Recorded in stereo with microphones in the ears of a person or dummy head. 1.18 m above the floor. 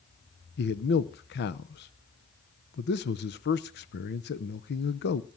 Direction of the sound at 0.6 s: 55° left (ahead or behind).